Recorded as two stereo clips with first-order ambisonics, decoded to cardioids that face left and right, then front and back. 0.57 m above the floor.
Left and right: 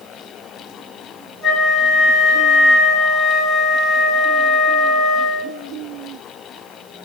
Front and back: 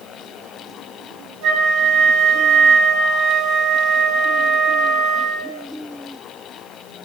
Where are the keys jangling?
No keys jangling in this recording.